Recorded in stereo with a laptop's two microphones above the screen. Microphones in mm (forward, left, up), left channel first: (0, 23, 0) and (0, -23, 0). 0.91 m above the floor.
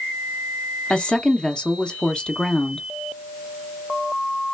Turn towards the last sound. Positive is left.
turn(degrees=20)  # may be behind; listen again after turning